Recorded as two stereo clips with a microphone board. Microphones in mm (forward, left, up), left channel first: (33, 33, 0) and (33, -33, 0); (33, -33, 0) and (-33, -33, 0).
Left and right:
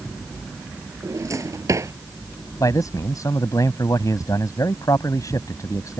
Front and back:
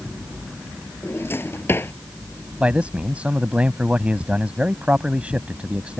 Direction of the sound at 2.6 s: 110° left.